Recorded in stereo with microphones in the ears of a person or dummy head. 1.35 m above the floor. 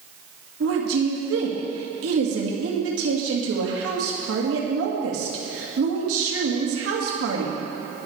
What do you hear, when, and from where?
0.6 s a woman speaking: 80° right, 2.5 m